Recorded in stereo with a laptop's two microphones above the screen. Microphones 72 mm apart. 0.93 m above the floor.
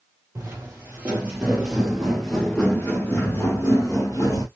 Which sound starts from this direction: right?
Footsteps, at 0.3 s.